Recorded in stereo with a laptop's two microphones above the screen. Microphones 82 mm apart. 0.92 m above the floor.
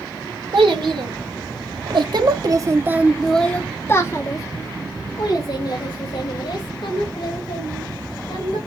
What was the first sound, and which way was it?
A child speaking, 85° right.